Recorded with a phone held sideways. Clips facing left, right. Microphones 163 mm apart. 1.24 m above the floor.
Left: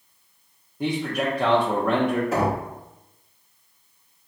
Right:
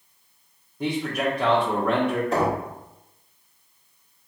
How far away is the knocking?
About 1.7 m.